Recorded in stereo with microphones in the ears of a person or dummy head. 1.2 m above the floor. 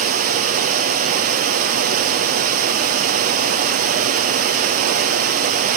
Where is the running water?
50° right (ahead or behind), 2.5 m.